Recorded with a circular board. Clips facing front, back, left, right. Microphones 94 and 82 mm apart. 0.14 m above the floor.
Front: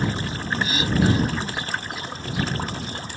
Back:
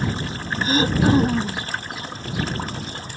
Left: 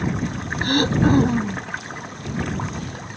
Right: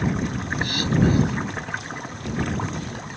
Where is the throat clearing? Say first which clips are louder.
Back 4 dB, left 4 dB; 130° left.